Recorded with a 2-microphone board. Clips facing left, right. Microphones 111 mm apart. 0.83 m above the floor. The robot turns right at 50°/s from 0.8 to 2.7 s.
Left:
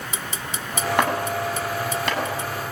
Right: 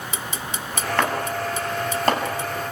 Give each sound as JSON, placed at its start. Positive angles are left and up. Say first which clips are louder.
{"t": 1.0, "sound": "chopping", "louder": "left 1 dB", "side_deg": 15, "distance_m": 7.5}